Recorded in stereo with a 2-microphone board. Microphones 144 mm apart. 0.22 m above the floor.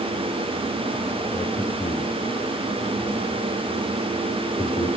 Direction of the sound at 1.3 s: 35° left (ahead or behind).